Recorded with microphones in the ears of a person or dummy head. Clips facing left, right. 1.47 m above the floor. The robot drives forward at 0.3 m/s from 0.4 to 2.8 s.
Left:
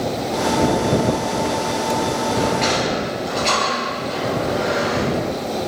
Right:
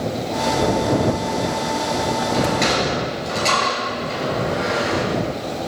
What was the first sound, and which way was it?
A sliding door, 15° right (ahead or behind).